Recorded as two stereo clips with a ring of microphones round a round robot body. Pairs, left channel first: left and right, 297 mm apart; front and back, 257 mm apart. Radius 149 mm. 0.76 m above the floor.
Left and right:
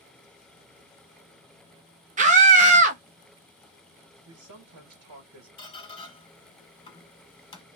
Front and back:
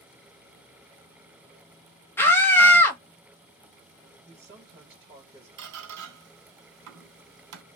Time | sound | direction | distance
2.2 | a scream | 70° right | 0.7 m
4.2 | a man speaking | 110° right | 1.0 m
5.6 | a squeak | 160° left | 1.2 m